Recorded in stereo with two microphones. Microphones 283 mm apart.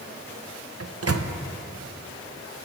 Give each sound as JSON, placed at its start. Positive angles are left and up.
{"t": 0.8, "sound": "a microwave", "side_deg": -55, "distance_m": 0.5}